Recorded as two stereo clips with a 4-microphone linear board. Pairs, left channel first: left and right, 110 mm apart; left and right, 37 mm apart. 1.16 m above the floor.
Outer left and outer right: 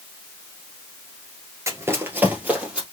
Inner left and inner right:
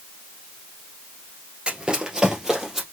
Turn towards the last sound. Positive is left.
turn(degrees=-10)  # may be behind; listen again after turning